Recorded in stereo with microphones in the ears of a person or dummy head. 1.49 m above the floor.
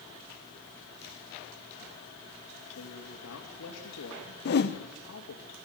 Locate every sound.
2.8 s a man speaking: 85° left, 3 m
4.5 s a whoosh: 55° left (ahead or behind), 1.4 m